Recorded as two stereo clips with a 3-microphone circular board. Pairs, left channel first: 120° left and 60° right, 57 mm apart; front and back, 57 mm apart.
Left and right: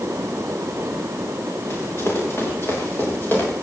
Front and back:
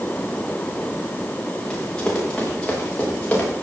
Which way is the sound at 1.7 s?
75° left.